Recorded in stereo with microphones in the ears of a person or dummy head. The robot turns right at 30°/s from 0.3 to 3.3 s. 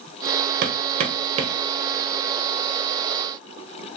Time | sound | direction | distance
0.6 | hammering | 60° right (ahead or behind) | 1.0 m